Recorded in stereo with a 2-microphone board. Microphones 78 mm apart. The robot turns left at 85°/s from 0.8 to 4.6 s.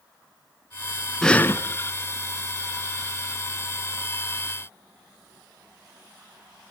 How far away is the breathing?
About 1.2 m.